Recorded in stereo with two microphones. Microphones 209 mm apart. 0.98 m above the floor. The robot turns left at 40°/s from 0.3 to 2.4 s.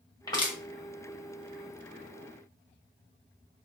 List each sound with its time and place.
0.3 s crushing: 20° left (ahead or behind), 1.1 m; by 0.6 s 25° left (ahead or behind), 1.1 m